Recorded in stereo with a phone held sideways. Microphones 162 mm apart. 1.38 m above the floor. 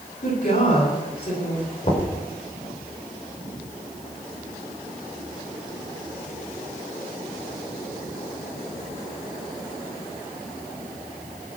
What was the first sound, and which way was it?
A woman speaking, 75° left (ahead or behind).